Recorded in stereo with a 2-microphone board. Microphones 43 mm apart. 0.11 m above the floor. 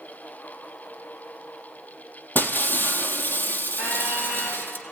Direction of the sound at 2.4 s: 50° left (ahead or behind).